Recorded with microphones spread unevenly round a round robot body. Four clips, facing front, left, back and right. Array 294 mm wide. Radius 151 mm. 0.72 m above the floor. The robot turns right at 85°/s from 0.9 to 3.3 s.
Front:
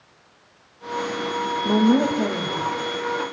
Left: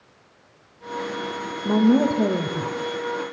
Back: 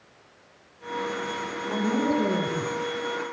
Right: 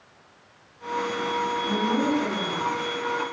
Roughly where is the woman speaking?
Ahead left.